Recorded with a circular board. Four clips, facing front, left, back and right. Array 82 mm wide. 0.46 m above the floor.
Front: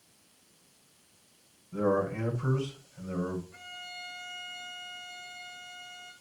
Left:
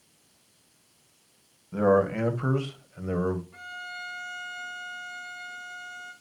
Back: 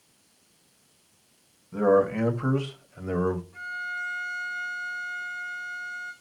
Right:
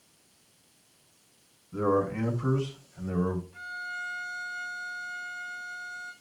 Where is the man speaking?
115° left, 2.5 m; by 3.4 s 155° left, 2.0 m.